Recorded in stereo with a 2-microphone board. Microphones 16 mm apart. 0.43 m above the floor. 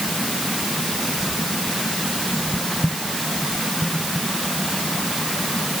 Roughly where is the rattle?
No rattle in this recording.